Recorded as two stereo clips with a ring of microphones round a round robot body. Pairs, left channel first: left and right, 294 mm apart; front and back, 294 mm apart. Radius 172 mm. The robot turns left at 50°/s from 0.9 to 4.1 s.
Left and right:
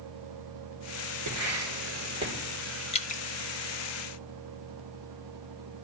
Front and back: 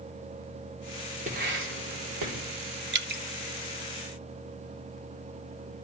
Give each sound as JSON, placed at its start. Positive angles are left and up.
{"t": 1.3, "sound": "writing", "azimuth_deg": -115, "distance_m": 3.0}
{"t": 2.9, "sound": "dripping", "azimuth_deg": 150, "distance_m": 0.9}